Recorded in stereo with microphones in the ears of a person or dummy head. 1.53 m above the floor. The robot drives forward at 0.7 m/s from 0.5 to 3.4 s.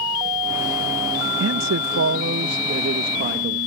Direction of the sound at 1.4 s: 80° right.